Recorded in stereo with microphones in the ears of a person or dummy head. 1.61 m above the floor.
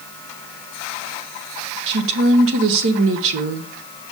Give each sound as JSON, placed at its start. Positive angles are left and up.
{"t": 1.9, "sound": "a woman speaking", "side_deg": -65, "distance_m": 1.2}